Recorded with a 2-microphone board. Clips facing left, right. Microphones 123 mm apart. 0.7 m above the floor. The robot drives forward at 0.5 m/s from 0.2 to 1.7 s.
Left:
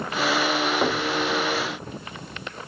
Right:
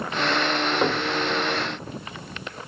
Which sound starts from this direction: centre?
Knocking, at 0.8 s.